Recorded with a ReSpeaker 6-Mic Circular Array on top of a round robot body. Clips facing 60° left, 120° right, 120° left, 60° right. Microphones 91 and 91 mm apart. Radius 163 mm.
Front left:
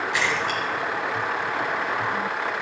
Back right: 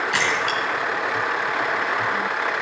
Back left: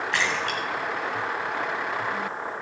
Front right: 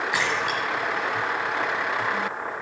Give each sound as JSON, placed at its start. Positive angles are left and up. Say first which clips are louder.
{"t": 0.1, "sound": "a splash", "louder": "back right 1 dB, even", "azimuth_deg": -140, "distance_m": 1.9}